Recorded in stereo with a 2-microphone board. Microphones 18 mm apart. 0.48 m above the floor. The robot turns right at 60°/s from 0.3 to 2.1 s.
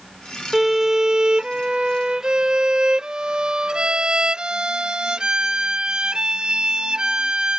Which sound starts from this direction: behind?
A violin, at 0.5 s.